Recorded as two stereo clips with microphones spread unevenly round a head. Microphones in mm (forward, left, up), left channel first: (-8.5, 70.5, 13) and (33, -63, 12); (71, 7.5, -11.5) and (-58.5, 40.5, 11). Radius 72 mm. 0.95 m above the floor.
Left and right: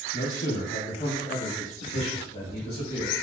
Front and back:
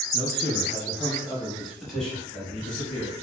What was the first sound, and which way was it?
A man speaking, 110° left.